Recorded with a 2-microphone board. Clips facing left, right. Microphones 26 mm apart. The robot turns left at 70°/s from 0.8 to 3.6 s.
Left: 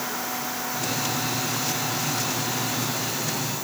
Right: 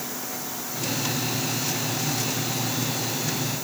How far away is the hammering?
I don't hear hammering.